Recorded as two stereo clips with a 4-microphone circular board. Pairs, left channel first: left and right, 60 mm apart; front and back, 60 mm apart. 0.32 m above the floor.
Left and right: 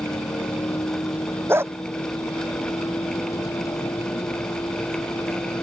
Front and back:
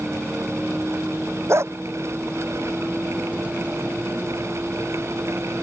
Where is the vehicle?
110° left; by 5.6 s 115° left.